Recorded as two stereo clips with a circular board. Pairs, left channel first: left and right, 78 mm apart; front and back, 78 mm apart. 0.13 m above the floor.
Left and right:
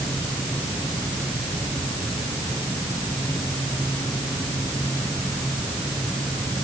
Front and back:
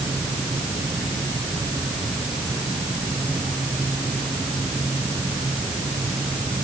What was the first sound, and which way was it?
Only background noise.